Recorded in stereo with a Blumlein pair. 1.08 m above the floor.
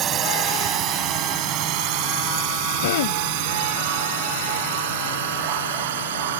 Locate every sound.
0.0 s a drone: 30° right; by 6.4 s 60° right
2.8 s throat clearing: 55° left